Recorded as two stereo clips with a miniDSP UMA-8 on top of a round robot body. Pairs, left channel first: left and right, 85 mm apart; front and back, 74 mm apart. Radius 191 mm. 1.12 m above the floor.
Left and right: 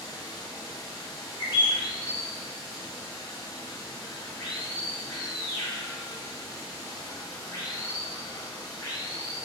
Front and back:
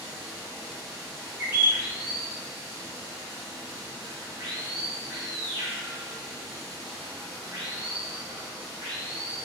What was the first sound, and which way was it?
Running water, 145° left.